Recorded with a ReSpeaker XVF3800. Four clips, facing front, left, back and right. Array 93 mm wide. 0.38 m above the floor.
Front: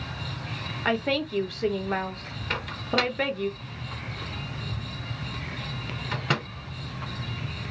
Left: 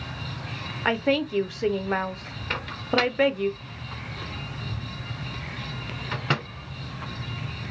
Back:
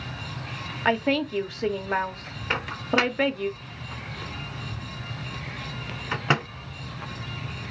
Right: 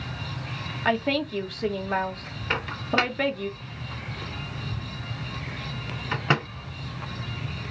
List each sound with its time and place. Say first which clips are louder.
0.8 s a woman speaking: left 1 dB, back 3 dB; 135° left, 0.8 m
2.5 s a microwave: even, back 3 dB; 145° right, 0.6 m